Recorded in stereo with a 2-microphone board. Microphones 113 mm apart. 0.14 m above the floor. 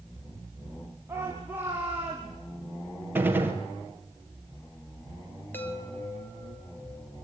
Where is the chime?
20° left (ahead or behind), 3.5 m.